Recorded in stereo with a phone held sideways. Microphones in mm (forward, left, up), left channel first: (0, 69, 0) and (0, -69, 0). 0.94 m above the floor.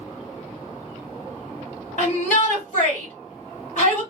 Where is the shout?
65° left (ahead or behind), 2 m.